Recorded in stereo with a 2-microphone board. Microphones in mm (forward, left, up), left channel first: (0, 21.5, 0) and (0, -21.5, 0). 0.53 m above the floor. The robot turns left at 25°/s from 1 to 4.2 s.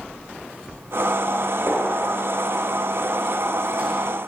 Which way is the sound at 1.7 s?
60° right (ahead or behind).